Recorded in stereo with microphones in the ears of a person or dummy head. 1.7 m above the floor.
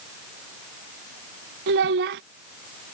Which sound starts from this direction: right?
A child speaking, at 1.7 s.